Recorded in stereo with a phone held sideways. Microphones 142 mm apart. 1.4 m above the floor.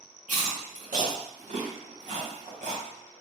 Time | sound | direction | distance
0.3 | chewing | 65° right (ahead or behind) | 1.5 m